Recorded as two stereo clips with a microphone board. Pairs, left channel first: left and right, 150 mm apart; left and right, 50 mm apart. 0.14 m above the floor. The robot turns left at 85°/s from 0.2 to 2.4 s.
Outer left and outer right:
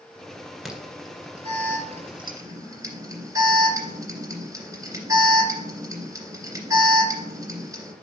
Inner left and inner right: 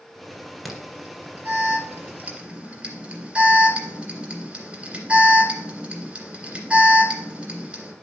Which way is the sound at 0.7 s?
Centre (ahead or behind).